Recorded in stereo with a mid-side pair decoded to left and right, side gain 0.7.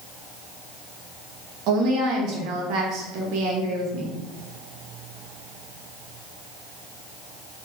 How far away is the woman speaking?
About 1.3 m.